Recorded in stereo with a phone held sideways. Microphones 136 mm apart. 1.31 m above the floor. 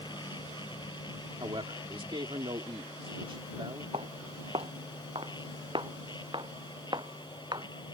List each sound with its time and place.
0.0 s a machine running: 35° left (ahead or behind)
1.4 s a man speaking: 40° right (ahead or behind)
3.9 s footsteps: 45° right (ahead or behind); by 7.7 s 35° right (ahead or behind)